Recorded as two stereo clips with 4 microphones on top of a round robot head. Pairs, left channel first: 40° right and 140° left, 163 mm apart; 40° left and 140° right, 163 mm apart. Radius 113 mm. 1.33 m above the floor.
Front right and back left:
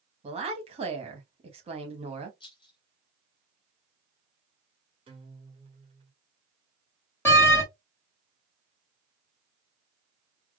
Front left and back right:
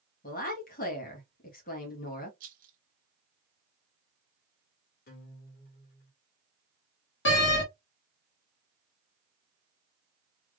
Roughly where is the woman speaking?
Left.